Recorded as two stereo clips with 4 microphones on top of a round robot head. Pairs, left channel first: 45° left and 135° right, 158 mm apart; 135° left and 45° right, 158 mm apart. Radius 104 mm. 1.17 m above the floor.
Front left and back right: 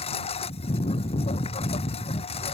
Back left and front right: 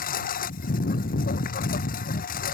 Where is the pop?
No pop in this recording.